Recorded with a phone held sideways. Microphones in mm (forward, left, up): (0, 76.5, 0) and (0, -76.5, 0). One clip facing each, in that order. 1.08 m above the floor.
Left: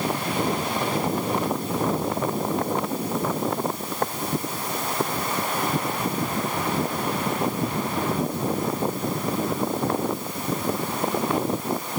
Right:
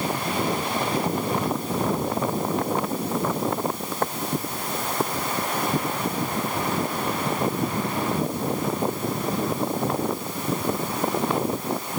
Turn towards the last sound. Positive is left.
No sound to turn to.